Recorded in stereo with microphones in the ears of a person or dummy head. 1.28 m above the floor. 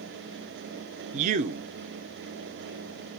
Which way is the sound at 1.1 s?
40° right (ahead or behind).